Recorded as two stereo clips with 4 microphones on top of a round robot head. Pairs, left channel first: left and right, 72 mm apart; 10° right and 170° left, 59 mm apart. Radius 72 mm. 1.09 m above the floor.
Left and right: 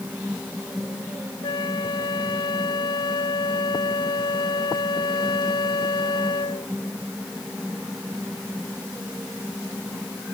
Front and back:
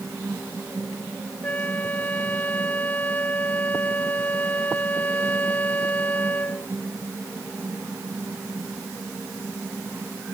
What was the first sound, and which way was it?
A flute, 55° left.